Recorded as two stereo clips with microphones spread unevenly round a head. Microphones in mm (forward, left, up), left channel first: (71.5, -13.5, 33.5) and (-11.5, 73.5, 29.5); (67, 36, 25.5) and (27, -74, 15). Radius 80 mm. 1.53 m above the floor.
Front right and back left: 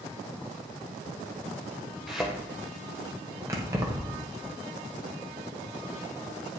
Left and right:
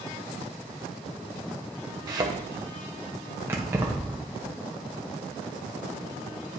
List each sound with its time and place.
2.1 s a thud: 135° right, 0.8 m
3.5 s keys jangling: 175° right, 0.7 m